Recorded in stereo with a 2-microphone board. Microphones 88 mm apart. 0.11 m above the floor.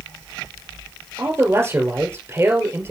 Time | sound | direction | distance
1.2 | a man speaking | 30° right (ahead or behind) | 2 m